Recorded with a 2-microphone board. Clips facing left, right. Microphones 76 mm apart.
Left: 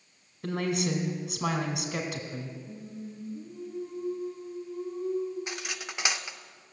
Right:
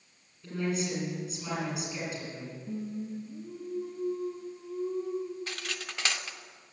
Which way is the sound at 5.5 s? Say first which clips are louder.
Left 1 dB; 15° left (ahead or behind).